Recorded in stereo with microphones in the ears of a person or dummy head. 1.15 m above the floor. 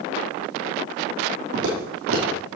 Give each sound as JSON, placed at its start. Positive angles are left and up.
{"t": 1.5, "sound": "footsteps", "side_deg": -50, "distance_m": 2.5}